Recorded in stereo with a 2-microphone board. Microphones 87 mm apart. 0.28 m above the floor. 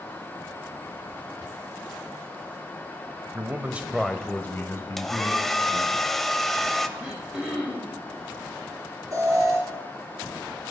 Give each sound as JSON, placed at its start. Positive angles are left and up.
{"t": 3.3, "sound": "a man speaking", "side_deg": -35, "distance_m": 1.3}
{"t": 5.0, "sound": "a hair dryer", "side_deg": 5, "distance_m": 1.0}
{"t": 7.0, "sound": "throat clearing", "side_deg": -10, "distance_m": 5.0}
{"t": 9.1, "sound": "an alarm", "side_deg": -40, "distance_m": 4.0}